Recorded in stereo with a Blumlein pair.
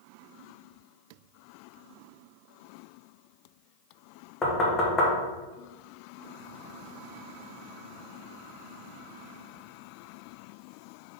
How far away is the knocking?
About 1.2 m.